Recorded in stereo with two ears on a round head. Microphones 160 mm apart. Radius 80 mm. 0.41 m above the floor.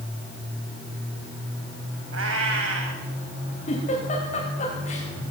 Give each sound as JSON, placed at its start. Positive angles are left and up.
{"t": 2.1, "sound": "a cat meowing", "side_deg": -75, "distance_m": 9.0}
{"t": 3.7, "sound": "a giggle", "side_deg": 35, "distance_m": 8.5}